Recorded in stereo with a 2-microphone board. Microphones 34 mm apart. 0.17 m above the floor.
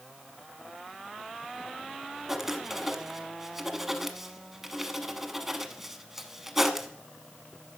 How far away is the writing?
About 1.0 m.